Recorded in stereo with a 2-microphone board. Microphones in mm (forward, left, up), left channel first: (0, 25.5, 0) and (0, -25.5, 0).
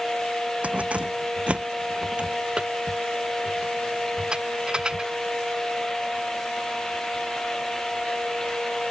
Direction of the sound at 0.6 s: 25° right (ahead or behind).